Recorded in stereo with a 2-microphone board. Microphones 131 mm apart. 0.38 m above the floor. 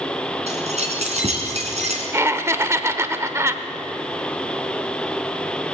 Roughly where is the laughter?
Right.